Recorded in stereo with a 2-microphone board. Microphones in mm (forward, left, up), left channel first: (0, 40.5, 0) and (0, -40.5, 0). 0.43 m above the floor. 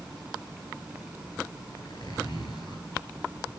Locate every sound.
1.8 s a zipper: 55° left (ahead or behind), 9.5 m